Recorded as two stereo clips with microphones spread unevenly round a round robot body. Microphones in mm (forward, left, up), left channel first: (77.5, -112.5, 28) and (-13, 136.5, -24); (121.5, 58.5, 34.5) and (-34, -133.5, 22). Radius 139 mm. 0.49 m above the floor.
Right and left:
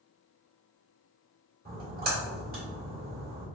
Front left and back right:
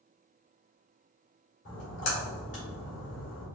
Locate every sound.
1.6 s a splash: 75° left, 1.8 m